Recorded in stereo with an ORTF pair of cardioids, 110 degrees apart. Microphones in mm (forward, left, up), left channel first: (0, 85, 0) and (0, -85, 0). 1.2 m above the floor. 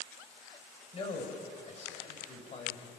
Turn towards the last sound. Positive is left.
turn(degrees=40)